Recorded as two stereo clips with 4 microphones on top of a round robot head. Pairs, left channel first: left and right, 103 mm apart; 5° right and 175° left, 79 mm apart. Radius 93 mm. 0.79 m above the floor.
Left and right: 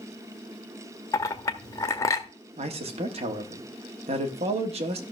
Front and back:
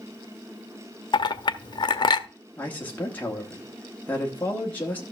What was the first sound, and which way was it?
A clink, 25° left.